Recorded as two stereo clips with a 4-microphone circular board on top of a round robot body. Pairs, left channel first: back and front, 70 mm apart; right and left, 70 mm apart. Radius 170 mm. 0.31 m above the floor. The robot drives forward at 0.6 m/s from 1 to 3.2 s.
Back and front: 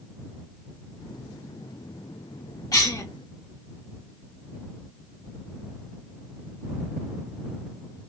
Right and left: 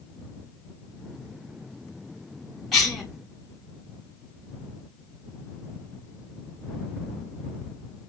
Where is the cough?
175° right, 1.9 m.